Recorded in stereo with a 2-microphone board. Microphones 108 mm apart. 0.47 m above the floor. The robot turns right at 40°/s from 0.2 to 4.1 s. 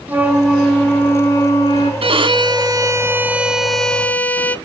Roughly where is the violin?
Right.